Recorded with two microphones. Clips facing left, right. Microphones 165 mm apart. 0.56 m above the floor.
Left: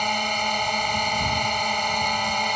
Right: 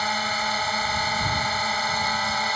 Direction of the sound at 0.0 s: 15° left (ahead or behind).